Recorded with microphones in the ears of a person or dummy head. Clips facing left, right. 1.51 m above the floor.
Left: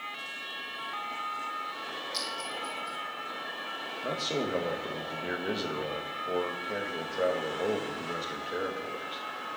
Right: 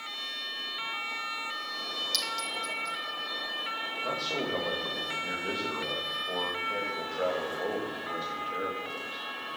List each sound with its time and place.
2.1 s a clink: 80° right, 3.5 m
4.0 s a man speaking: 25° left (ahead or behind), 1.8 m